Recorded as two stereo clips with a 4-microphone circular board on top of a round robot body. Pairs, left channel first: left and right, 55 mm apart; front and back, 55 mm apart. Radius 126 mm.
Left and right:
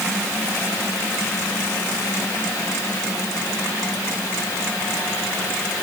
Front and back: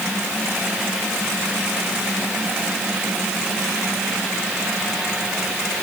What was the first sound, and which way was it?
Only background noise.